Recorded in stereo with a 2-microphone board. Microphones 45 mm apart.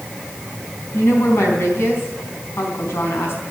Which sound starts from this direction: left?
A woman speaking, at 0.9 s.